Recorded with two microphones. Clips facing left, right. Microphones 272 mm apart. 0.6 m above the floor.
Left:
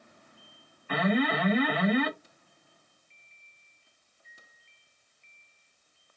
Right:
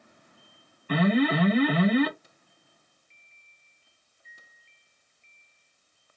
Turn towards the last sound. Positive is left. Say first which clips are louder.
# right 4 dB
turn(degrees=-40)  # may be behind; listen again after turning